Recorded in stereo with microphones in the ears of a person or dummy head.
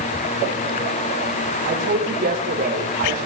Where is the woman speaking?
50° right (ahead or behind), 9.5 m.